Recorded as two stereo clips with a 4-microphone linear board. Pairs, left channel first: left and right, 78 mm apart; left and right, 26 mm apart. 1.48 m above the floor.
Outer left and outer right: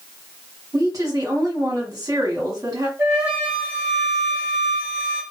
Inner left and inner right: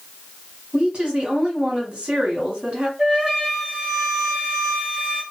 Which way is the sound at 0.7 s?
45° right (ahead or behind).